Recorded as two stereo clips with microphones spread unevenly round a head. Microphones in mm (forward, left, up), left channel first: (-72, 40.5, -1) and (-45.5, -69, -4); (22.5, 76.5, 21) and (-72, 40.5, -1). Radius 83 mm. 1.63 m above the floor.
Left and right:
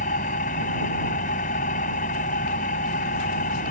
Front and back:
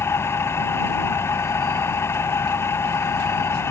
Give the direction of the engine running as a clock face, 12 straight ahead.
9 o'clock.